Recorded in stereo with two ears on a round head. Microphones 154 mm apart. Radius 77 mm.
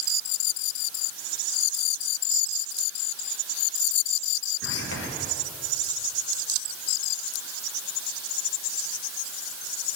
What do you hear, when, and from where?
4.6 s whispering: 75° left (ahead or behind), 1.1 m